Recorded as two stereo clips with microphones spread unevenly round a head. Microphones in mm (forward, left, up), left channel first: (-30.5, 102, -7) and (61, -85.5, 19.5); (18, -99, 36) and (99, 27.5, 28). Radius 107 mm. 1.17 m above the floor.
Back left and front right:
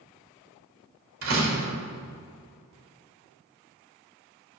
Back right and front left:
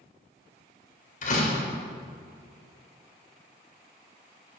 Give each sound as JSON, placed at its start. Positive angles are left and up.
{"t": 1.2, "sound": "a door slam", "azimuth_deg": -95, "distance_m": 3.0}